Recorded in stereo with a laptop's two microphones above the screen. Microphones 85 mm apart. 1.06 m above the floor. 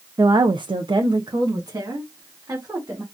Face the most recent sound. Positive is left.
turn(degrees=-35)  # may be behind; listen again after turning